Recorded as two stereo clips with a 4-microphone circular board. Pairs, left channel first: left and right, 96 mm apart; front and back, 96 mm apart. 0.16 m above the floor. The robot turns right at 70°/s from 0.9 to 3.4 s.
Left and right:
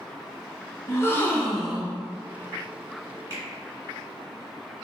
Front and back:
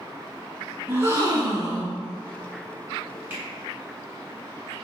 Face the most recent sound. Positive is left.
turn(degrees=-120)